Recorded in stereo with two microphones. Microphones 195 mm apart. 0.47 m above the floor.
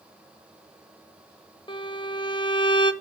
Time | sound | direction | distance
1.7 | a violin | 25° left (ahead or behind) | 0.8 m